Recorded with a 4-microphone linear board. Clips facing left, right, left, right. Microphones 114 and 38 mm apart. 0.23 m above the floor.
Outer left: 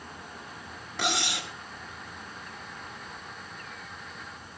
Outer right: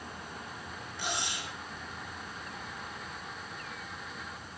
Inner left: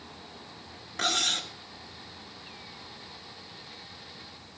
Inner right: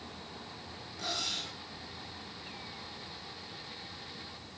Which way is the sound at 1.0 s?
65° left (ahead or behind).